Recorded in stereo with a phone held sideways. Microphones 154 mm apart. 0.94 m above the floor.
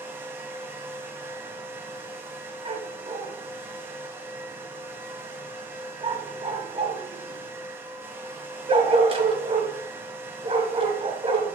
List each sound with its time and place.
0.0 s a fan: 15° right (ahead or behind), 1.3 m
2.6 s a dog barking: 35° right (ahead or behind), 1.7 m